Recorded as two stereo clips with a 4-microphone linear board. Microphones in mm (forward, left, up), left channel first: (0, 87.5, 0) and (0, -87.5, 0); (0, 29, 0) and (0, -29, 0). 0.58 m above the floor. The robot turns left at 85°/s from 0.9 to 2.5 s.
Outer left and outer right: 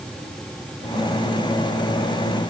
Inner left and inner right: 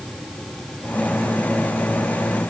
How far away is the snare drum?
I don't hear a snare drum.